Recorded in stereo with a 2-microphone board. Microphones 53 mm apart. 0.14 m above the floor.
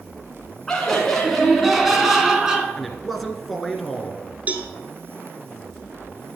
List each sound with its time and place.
0.7 s laughter: 10° left (ahead or behind), 1.6 m; by 2.7 s 15° right (ahead or behind), 1.7 m
2.8 s a man speaking: centre (ahead or behind), 1.4 m
4.5 s a cowbell: 30° right (ahead or behind), 1.2 m